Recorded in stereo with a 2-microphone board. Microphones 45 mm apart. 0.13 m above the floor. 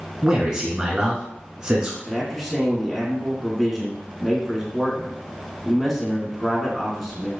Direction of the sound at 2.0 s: 5° right (ahead or behind).